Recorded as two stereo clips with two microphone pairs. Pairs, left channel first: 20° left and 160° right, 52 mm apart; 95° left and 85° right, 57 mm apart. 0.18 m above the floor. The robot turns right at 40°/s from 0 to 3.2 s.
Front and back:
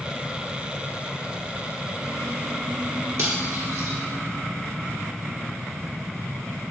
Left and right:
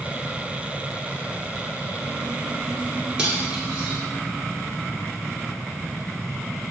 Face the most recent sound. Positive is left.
turn(degrees=-150)